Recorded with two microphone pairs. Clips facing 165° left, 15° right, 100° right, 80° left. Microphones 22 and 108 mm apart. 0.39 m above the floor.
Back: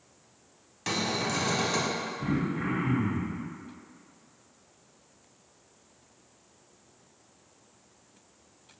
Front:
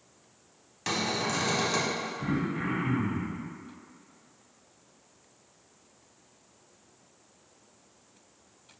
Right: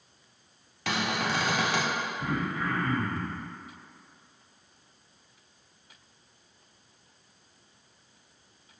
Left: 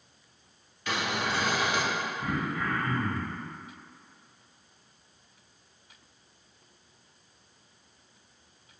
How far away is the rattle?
I don't hear a rattle.